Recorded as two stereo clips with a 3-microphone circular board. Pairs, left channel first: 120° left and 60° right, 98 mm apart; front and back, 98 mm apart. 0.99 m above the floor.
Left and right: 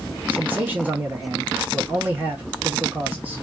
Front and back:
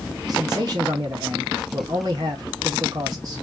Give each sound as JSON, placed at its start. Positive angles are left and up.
{"t": 0.3, "sound": "a man speaking", "azimuth_deg": -130, "distance_m": 1.0}